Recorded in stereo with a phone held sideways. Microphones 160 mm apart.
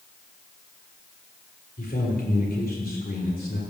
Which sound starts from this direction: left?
A man speaking, at 1.8 s.